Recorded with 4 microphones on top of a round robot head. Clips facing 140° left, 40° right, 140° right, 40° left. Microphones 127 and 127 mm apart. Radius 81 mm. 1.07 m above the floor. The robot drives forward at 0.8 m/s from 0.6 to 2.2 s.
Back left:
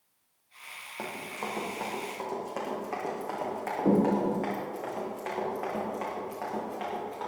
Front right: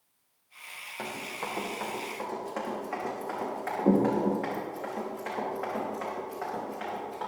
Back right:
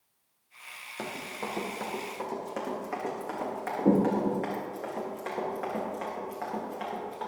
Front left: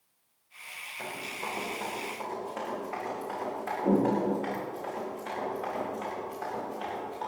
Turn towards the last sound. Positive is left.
turn(degrees=-160)